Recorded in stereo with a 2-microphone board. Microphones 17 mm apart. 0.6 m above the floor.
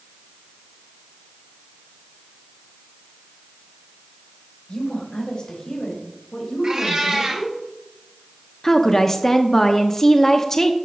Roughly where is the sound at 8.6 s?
Centre.